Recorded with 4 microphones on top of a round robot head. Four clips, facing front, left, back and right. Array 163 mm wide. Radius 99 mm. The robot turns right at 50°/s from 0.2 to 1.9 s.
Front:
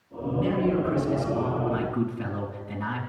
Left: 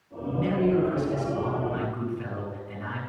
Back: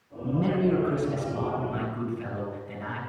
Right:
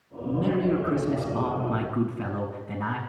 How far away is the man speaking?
About 6.5 m.